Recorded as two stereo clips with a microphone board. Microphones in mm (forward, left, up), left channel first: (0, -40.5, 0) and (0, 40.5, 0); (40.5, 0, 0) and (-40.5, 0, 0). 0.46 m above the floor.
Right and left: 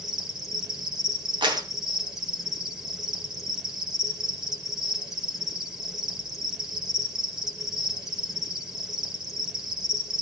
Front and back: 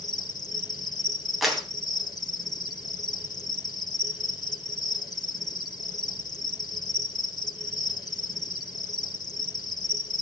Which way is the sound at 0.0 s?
10° left.